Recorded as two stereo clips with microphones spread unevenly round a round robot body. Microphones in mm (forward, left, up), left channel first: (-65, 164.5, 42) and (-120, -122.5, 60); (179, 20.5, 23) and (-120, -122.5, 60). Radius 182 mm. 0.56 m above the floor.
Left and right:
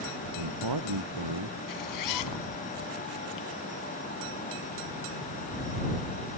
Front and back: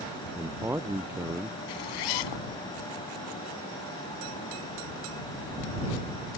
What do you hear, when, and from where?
0.3 s a man speaking: 70° right
1.7 s a zipper: 45° left